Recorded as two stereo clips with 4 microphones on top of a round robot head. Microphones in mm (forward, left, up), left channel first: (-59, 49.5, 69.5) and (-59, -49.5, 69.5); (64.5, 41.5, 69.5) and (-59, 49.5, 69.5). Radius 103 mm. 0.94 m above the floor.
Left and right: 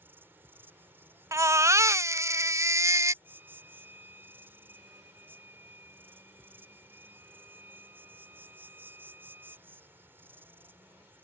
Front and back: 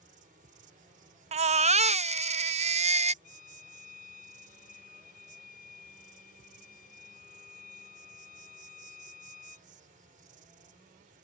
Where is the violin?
15° right.